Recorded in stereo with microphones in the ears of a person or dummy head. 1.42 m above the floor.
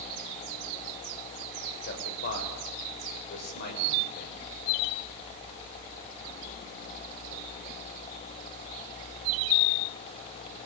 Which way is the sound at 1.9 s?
50° left (ahead or behind).